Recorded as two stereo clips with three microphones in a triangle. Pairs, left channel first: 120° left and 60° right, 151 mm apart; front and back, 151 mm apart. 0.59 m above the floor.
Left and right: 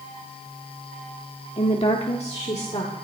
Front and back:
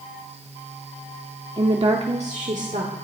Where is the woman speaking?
140° left, 1.1 m; by 2.9 s 160° left, 1.8 m.